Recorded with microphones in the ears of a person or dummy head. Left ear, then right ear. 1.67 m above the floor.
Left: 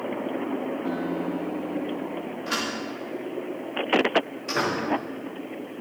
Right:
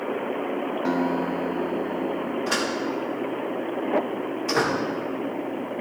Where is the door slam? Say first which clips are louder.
Right 2 dB; 10° right (ahead or behind), 2.5 m.